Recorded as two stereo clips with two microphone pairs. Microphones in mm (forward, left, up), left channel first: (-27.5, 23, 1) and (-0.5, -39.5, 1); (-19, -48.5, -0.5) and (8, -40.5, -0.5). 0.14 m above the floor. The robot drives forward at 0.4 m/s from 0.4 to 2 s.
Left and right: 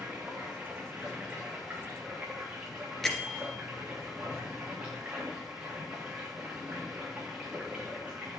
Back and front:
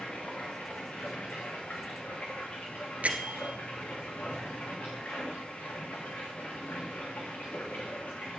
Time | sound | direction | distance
0.0 | running water | 130° right | 6 m
3.0 | a bell | 30° left | 2.0 m